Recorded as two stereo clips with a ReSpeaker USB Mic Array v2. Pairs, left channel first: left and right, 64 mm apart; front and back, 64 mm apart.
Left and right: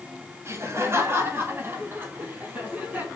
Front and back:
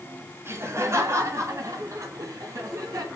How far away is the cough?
I don't hear a cough.